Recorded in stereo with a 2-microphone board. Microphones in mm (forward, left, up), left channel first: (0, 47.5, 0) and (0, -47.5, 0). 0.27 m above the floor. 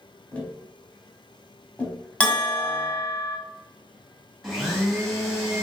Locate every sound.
0.3 s tapping: 10° left (ahead or behind), 1.6 m
2.2 s a bell: 10° left (ahead or behind), 1.4 m
4.4 s a blender: centre (ahead or behind), 1.7 m